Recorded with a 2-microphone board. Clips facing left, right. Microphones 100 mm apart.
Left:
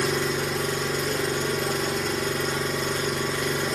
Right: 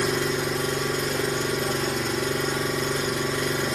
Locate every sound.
0.0 s an engine running: centre (ahead or behind), 2.5 m